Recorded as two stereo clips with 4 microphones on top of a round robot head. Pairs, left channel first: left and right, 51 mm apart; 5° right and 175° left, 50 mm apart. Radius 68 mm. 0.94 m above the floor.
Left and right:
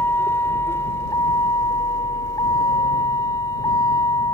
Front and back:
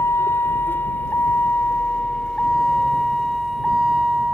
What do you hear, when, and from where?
0.0 s a vehicle: 35° left; by 4.3 s 100° left